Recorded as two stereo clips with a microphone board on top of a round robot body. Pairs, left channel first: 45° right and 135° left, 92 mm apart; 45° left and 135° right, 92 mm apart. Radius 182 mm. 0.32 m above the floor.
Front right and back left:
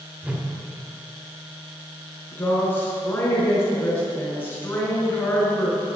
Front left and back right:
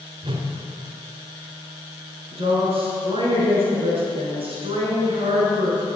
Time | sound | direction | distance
0.2 | a whoosh | 150° right | 2 m
2.3 | a woman speaking | 115° right | 5 m